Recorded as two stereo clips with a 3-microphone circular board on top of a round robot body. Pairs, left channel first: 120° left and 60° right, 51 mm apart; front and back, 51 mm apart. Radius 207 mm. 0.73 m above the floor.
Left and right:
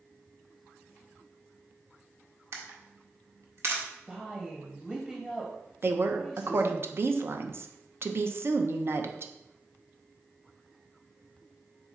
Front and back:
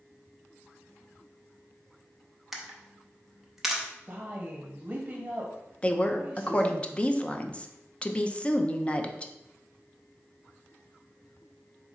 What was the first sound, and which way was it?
A camera shutter, 95° right.